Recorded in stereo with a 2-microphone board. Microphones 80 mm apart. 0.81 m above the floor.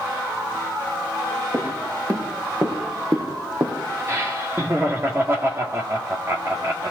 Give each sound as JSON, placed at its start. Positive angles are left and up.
{"t": 1.5, "sound": "footsteps", "side_deg": -40, "distance_m": 5.5}
{"t": 4.1, "sound": "laughter", "side_deg": -35, "distance_m": 2.0}